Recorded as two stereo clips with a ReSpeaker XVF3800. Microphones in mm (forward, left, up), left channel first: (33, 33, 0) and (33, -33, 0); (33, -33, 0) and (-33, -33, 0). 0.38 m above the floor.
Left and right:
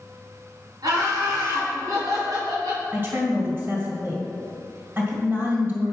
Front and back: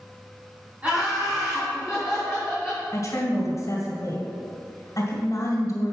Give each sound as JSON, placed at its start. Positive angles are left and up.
{"t": 0.8, "sound": "laughter", "azimuth_deg": -110, "distance_m": 3.0}
{"t": 2.9, "sound": "a woman speaking", "azimuth_deg": -40, "distance_m": 2.0}